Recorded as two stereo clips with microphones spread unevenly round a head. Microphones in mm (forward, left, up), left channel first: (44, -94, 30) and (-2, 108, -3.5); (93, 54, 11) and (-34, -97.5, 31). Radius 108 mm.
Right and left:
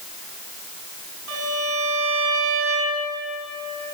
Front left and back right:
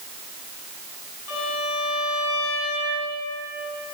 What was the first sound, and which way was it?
A violin, 80° left.